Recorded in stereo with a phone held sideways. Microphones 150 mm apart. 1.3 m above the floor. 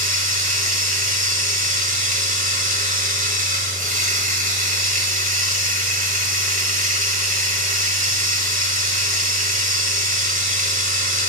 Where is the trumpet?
I don't hear a trumpet.